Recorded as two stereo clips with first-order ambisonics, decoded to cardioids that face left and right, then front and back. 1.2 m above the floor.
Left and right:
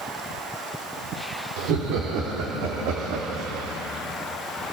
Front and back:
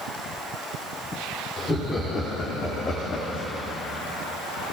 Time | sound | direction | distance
1.6 | laughter | 75° right | 4.5 m